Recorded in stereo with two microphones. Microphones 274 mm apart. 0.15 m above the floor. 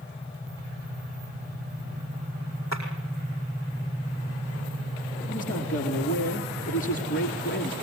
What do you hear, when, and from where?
2.7 s a clap: 70° left (ahead or behind), 5 m
5.3 s a man speaking: 50° left (ahead or behind), 2.5 m